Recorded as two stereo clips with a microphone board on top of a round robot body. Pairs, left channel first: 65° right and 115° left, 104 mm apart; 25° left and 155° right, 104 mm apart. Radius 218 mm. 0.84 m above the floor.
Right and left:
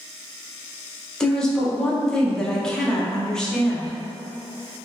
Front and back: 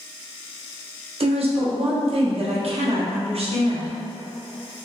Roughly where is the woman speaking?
Behind right.